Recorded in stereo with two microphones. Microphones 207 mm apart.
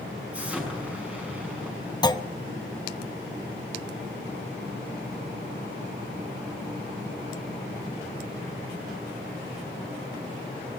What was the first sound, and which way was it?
An explosion, 5° right (ahead or behind).